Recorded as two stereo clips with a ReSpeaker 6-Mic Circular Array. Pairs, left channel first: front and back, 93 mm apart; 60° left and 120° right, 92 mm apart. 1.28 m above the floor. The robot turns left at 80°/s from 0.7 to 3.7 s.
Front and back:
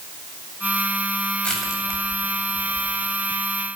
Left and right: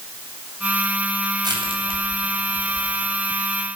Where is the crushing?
75° right, 8 m; by 3.1 s 150° left, 8 m.